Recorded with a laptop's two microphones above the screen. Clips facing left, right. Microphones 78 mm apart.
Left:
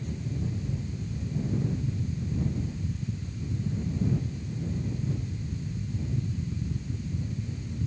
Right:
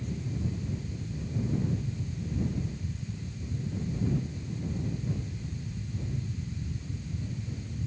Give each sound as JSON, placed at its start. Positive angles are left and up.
{"t": 0.0, "sound": "a fan", "side_deg": 65}